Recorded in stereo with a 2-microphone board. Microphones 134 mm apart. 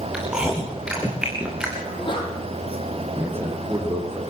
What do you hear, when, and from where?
0.1 s chewing: 5° right (ahead or behind), 6.5 m
1.8 s a sneeze: 40° left (ahead or behind), 10 m
3.2 s a man speaking: 15° right (ahead or behind), 6 m